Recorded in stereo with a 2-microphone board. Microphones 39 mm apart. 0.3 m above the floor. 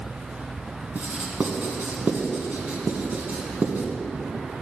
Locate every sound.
0.9 s writing: 45° right (ahead or behind), 1.2 m